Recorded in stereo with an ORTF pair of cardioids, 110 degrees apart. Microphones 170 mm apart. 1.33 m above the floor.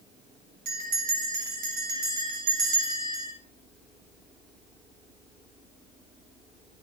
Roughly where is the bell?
Ahead right.